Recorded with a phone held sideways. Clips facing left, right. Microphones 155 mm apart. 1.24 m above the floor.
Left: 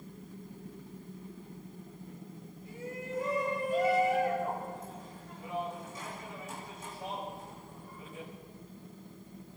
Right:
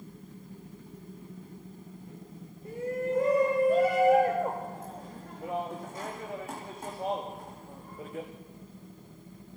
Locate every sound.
2.6 s a shout: 60° right (ahead or behind), 2.5 m